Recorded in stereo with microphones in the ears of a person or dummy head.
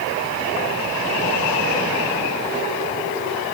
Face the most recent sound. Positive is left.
No sound to turn to.